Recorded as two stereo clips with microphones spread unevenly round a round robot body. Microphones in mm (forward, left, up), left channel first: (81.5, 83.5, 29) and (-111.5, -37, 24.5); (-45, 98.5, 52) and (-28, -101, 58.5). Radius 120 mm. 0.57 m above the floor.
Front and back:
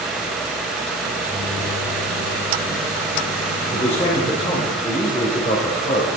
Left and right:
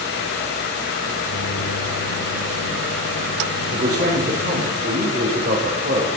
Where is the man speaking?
35° right, 2.5 m.